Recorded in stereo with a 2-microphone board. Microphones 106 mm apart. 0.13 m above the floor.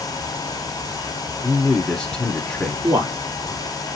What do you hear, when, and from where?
1.4 s a man speaking: 5° left (ahead or behind), 1.1 m
2.8 s a man speaking: 25° right (ahead or behind), 1.2 m